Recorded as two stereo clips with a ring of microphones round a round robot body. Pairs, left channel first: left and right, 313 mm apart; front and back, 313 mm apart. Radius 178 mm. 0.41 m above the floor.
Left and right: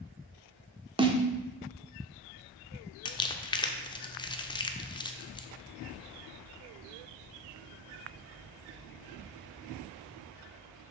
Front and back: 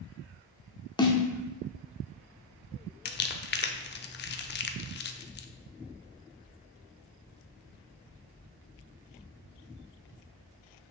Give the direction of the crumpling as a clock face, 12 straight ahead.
11 o'clock.